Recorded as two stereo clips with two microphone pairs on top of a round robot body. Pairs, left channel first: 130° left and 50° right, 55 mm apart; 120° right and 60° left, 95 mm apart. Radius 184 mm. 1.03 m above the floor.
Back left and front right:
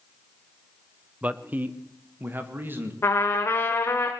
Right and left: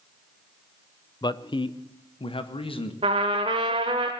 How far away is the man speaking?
About 0.9 m.